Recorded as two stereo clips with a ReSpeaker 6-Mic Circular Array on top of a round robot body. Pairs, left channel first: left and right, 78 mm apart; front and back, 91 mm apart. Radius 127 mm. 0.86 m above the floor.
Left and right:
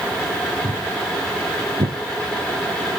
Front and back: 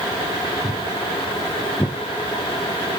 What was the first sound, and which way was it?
Footsteps, 115° right.